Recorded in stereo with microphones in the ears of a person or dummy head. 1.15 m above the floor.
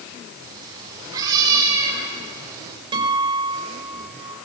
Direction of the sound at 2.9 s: 25° right (ahead or behind).